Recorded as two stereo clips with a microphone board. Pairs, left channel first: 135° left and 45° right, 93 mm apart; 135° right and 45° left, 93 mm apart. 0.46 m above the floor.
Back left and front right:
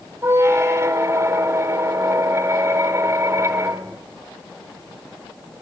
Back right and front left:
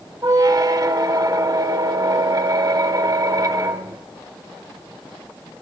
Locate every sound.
0.2 s a squeak: 10° left, 0.5 m